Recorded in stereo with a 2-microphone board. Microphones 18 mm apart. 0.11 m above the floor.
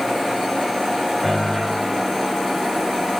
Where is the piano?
10° right (ahead or behind), 4 m.